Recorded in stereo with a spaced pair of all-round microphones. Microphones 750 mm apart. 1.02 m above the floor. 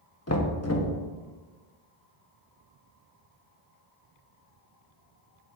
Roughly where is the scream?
No scream in this recording.